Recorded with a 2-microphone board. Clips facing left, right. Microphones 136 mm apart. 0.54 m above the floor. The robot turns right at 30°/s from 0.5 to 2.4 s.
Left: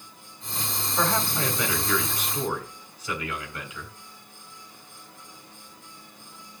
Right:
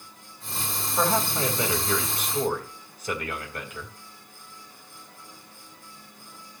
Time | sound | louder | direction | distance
1.0 | a man speaking | right 2 dB | 165° right | 3 m